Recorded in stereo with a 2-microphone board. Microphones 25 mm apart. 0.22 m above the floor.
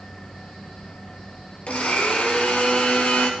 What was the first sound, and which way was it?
A blender, 65° left (ahead or behind).